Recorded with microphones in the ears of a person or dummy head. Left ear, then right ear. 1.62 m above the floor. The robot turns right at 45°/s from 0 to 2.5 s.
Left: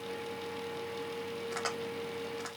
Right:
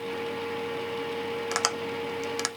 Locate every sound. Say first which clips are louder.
1.5 s tapping: right 8 dB; 65° right (ahead or behind), 0.7 m; by 2.5 s 70° right (ahead or behind), 0.7 m